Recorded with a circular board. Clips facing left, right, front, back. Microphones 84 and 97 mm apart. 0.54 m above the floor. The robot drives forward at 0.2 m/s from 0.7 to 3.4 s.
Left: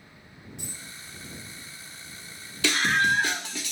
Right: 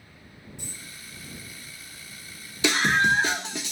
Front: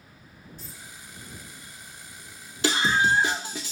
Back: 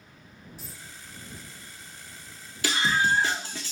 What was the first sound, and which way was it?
A dropped coin, 100° left.